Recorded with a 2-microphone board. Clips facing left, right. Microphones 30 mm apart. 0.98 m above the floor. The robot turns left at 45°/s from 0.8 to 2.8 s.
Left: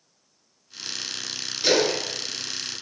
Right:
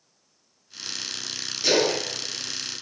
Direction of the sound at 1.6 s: 65° left (ahead or behind).